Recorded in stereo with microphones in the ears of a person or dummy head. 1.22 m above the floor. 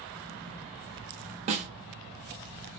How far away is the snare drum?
About 0.7 m.